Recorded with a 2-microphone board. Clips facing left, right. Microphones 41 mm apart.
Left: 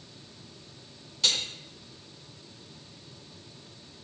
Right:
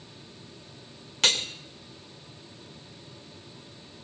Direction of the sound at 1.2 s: 65° right (ahead or behind).